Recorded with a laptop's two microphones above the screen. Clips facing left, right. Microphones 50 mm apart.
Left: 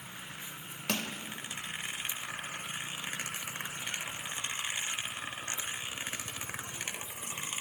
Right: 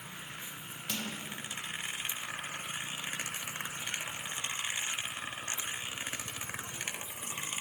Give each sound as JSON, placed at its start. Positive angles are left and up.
{"t": 0.9, "sound": "crushing", "side_deg": 55, "distance_m": 2.0}